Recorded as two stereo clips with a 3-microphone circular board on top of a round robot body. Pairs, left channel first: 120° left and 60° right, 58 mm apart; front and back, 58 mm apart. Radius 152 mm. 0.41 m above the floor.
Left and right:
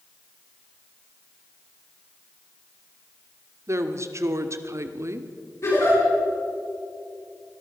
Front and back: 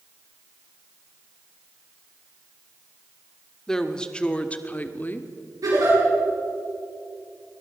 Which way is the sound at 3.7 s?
80° right.